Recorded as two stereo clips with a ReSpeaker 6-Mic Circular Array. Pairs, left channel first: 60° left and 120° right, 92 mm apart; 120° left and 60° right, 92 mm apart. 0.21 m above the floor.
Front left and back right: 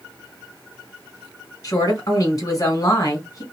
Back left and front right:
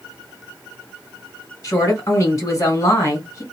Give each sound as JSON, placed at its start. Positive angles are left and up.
{"t": 1.6, "sound": "a woman speaking", "azimuth_deg": 80, "distance_m": 2.0}